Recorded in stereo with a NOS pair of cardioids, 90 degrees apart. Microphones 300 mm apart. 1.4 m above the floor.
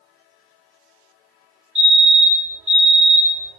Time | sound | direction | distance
1.8 | a fire alarm | 45° right | 2.5 m